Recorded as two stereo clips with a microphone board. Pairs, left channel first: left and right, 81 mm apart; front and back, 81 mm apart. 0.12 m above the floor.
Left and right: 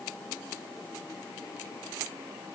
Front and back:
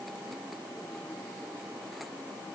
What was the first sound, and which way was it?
Only background noise.